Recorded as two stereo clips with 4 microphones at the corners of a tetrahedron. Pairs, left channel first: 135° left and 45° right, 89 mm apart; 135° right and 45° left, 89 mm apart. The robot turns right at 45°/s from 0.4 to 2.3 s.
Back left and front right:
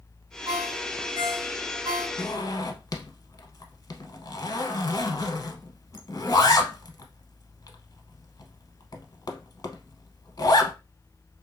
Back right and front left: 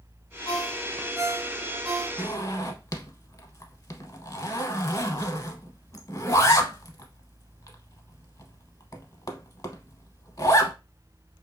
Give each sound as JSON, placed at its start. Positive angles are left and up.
{"t": 0.5, "sound": "a ringtone", "azimuth_deg": -85, "distance_m": 2.0}
{"t": 2.2, "sound": "a zipper", "azimuth_deg": 175, "distance_m": 0.6}